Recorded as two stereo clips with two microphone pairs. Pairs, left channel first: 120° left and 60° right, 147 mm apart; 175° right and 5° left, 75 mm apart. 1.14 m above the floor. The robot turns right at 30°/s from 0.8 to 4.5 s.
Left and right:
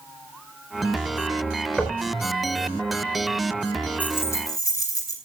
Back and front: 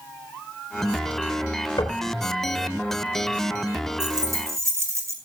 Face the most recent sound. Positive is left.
turn(degrees=55)